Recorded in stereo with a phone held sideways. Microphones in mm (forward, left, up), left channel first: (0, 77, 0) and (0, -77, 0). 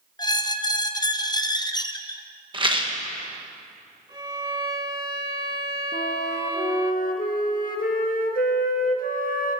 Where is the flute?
70° left (ahead or behind), 1.3 m.